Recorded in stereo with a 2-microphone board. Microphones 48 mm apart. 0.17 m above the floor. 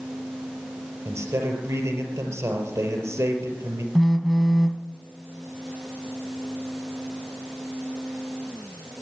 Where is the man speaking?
70° right (ahead or behind), 4 m.